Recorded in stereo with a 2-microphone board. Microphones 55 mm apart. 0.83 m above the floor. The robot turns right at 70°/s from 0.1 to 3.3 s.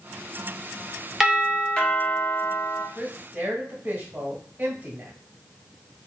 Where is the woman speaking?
15° right (ahead or behind), 1.1 m; by 5.1 s 40° right (ahead or behind), 1.1 m.